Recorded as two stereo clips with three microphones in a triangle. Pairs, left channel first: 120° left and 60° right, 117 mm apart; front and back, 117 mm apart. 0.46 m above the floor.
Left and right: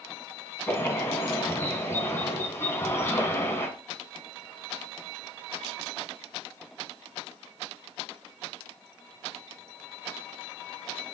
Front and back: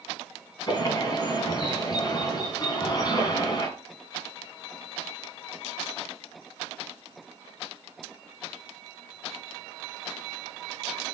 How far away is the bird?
About 3 m.